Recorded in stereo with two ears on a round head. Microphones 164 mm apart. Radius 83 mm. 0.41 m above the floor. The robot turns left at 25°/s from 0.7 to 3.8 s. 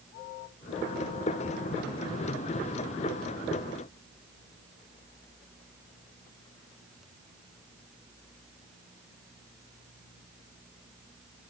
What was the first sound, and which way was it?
Only background noise.